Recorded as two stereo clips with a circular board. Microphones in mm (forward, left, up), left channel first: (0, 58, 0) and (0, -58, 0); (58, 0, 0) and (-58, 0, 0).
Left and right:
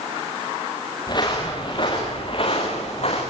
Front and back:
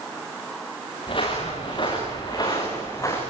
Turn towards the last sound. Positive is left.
turn(degrees=65)